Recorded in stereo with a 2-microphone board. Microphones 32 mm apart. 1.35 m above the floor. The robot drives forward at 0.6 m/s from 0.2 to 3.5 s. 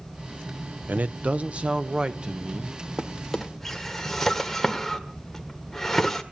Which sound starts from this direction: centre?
A drawer, at 3.0 s.